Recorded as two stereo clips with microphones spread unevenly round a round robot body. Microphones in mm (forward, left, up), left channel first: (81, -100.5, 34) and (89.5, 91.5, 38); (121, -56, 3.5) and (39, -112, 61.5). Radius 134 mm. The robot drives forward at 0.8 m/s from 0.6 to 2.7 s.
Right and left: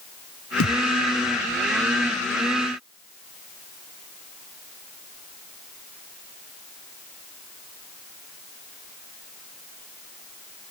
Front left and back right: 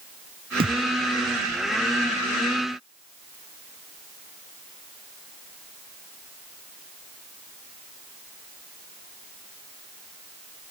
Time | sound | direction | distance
0.6 | a thud | 120° right | ?